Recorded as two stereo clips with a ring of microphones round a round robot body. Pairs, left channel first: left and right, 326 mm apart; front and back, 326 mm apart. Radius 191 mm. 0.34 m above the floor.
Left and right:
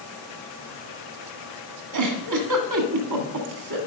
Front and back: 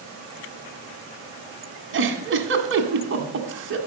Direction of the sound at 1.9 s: 125° right.